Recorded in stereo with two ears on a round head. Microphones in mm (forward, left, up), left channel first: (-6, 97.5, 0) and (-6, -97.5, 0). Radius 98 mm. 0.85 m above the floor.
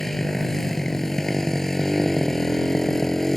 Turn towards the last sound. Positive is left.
turn(degrees=0)  # may be behind; listen again after turning